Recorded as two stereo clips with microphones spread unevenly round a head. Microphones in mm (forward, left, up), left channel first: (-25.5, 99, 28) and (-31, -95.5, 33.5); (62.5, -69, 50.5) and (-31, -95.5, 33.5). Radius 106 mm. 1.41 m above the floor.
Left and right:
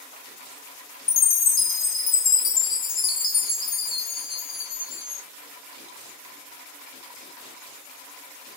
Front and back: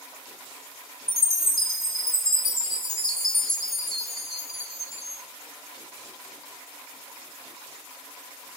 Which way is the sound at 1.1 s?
55° left.